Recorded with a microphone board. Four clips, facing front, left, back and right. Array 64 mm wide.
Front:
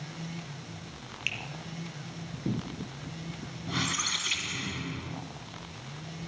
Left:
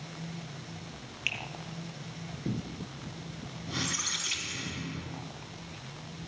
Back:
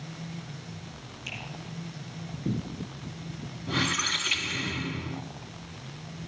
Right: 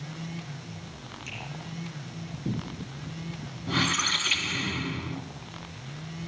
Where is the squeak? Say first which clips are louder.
Right 9 dB, back 4 dB; 105° right, 0.9 m.